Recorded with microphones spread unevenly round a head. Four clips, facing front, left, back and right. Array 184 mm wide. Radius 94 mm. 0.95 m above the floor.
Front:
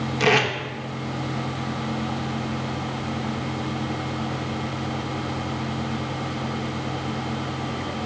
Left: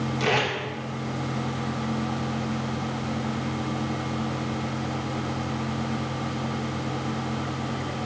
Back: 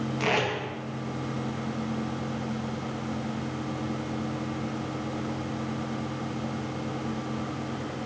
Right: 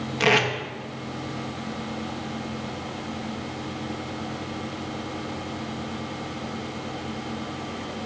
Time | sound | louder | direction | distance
0.2 | tape being pulled | right 4 dB, front 7 dB | 60° right | 1.0 m